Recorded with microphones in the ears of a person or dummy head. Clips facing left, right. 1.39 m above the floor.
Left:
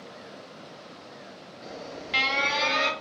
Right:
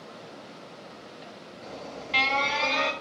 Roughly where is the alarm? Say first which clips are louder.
Left 1 dB; centre.